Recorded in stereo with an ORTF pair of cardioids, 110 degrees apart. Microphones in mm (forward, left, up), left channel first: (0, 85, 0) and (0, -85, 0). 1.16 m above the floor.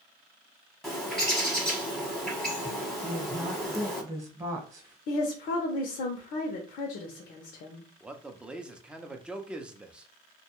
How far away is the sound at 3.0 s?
About 1.1 m.